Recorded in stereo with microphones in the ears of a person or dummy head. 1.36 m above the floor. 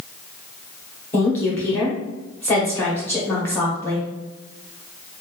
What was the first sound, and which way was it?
A woman speaking, 15° left (ahead or behind).